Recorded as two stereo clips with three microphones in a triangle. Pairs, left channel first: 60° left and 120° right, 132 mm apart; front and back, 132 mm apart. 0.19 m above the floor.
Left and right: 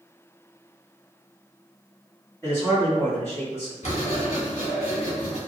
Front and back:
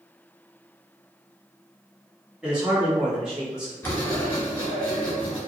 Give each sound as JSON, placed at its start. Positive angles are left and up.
{"t": 2.4, "sound": "a man speaking", "azimuth_deg": 100, "distance_m": 1.5}
{"t": 3.8, "sound": "writing", "azimuth_deg": 75, "distance_m": 1.4}